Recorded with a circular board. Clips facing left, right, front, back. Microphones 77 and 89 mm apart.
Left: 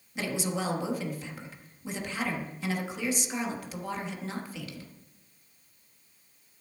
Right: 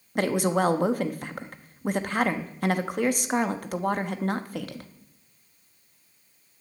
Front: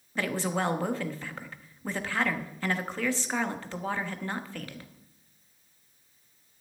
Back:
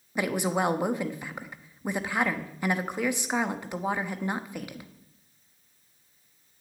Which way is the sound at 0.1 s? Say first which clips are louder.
Right 8 dB, back 3 dB; 110° right.